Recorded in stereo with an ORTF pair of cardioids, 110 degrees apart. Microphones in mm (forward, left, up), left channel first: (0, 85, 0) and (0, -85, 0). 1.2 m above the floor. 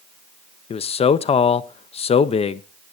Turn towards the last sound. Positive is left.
turn(degrees=35)